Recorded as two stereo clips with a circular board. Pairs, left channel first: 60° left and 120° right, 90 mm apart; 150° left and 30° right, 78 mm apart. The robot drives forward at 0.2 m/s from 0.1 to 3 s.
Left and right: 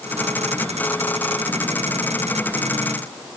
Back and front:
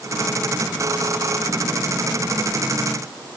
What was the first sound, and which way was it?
Only background noise.